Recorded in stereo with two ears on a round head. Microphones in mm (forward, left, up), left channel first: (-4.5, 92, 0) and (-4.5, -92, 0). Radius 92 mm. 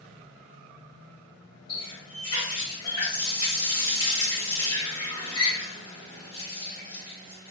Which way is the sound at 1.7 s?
25° left (ahead or behind).